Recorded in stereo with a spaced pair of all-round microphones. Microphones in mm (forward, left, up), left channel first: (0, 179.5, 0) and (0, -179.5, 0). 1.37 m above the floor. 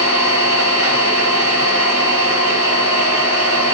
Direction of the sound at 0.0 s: 65° left (ahead or behind).